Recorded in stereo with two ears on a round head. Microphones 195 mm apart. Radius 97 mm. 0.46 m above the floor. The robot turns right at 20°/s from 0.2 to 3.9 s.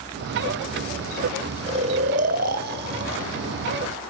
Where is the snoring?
150° right, 0.6 m; by 3.2 s 120° right, 0.6 m.